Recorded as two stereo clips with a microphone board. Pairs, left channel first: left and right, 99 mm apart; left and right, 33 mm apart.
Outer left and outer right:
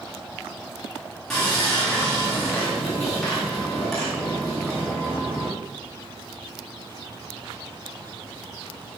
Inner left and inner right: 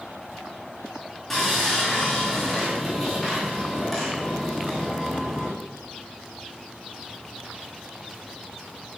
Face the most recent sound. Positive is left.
turn(degrees=5)  # may be behind; listen again after turning